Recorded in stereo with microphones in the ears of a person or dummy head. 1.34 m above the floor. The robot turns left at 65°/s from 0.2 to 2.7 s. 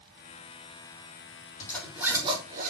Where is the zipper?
20° left (ahead or behind), 4 m; by 2.7 s 50° right (ahead or behind), 4 m.